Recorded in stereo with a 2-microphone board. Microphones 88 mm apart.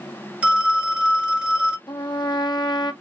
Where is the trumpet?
55° left (ahead or behind), 0.7 m.